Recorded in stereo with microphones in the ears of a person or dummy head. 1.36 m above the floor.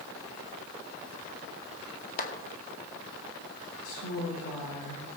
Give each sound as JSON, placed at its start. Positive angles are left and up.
{"t": 2.2, "sound": "a clap", "side_deg": 45, "distance_m": 2.0}
{"t": 3.8, "sound": "a woman speaking", "side_deg": 75, "distance_m": 8.0}